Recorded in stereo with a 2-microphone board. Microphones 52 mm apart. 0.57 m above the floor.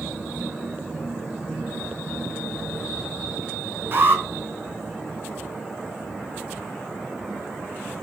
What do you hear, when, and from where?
3.9 s an alarm: 45° right (ahead or behind), 3.5 m